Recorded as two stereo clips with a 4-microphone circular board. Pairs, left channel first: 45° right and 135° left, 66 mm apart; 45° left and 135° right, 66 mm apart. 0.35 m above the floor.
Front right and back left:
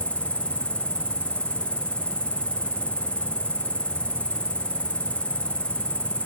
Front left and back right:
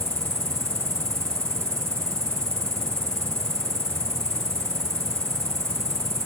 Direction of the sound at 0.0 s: 110° right.